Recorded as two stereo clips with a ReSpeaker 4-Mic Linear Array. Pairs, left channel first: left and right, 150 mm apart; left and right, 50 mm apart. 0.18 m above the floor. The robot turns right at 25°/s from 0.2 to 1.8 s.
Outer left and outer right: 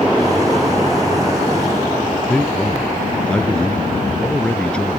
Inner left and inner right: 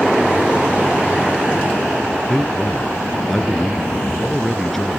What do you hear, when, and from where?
2.3 s a man speaking: 5° left (ahead or behind)